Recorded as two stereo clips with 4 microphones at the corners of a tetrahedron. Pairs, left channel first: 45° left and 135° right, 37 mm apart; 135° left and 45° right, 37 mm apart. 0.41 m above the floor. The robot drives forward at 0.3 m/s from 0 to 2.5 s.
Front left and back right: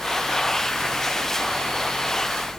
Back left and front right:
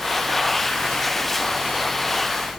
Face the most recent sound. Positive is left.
No sound to turn to.